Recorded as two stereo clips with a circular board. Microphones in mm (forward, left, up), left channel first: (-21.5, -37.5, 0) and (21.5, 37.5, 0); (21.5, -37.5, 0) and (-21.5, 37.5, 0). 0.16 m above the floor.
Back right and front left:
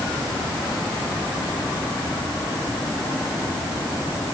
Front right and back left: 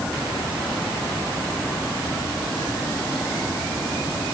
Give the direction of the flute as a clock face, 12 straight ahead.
I don't hear a flute.